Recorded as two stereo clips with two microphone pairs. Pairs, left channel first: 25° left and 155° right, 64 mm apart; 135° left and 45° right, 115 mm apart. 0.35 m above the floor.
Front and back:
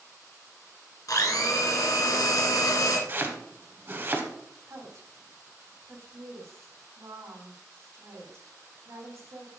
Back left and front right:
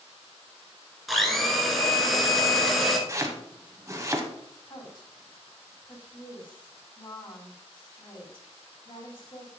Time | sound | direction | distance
1.1 | a blender | 50° left | 1.7 m
3.1 | chopping | 105° right | 1.3 m
4.7 | a woman speaking | 175° left | 3 m